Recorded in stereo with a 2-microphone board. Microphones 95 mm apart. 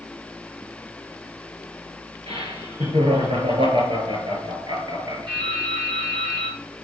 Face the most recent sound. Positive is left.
turn(degrees=-50)  # may be behind; listen again after turning